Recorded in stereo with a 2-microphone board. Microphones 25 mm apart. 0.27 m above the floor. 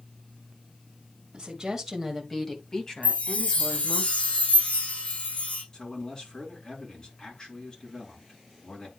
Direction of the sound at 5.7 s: 25° left (ahead or behind).